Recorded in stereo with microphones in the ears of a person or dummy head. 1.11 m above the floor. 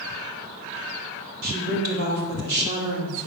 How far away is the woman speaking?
About 3 m.